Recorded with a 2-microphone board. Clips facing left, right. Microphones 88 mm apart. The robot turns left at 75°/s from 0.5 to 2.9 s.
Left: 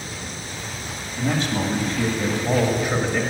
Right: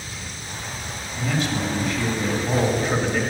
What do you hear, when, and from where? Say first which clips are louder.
1.2 s a man speaking: left 2 dB; 145° left, 1.5 m; by 3.2 s 15° left, 1.5 m